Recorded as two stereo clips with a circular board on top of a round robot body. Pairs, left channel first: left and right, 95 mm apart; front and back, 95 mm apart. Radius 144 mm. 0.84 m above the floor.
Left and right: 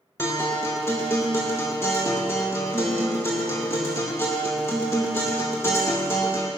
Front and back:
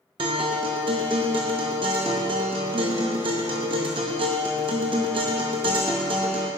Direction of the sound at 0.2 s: 155° left.